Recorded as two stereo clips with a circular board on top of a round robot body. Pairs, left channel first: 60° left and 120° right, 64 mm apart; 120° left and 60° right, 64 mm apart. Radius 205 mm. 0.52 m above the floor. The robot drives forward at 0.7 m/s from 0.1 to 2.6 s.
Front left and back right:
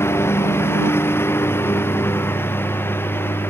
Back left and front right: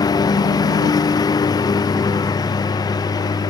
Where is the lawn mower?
115° left.